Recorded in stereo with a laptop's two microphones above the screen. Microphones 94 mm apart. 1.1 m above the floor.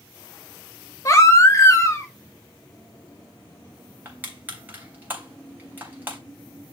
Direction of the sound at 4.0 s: 20° right (ahead or behind).